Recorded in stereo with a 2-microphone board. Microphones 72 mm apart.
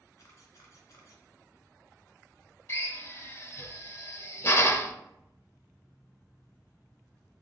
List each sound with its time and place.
0.2 s a camera shutter: 45° left (ahead or behind), 1.8 m
2.7 s a drill: 35° left (ahead or behind), 0.5 m